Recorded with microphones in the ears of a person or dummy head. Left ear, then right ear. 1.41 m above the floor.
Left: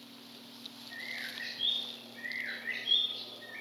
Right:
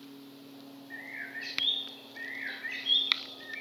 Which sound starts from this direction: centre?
A bird, at 0.9 s.